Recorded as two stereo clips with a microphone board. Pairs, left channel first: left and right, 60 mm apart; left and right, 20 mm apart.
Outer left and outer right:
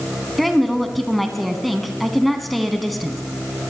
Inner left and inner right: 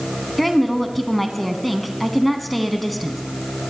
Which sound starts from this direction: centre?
A woman speaking, at 0.4 s.